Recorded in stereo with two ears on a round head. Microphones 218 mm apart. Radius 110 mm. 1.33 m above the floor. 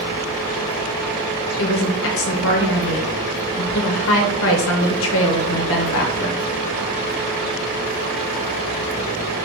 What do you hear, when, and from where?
1.6 s a woman speaking: 60° left (ahead or behind), 0.8 m